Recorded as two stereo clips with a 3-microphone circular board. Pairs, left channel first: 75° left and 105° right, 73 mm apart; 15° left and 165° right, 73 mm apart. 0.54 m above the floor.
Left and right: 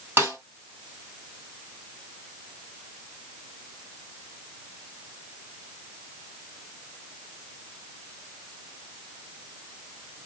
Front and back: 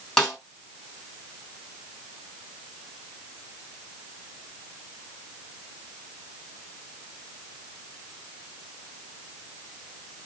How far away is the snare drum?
About 1.8 m.